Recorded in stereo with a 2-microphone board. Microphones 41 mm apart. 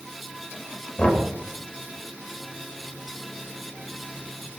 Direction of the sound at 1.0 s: 30° left (ahead or behind).